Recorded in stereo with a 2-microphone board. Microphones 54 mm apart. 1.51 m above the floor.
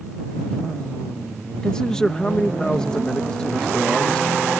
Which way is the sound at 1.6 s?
15° left (ahead or behind).